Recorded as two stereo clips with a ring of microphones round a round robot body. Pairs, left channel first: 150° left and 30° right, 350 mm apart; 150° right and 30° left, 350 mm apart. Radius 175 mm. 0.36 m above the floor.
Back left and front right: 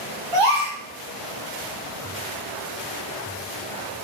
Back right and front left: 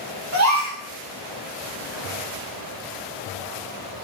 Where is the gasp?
20° right, 6 m.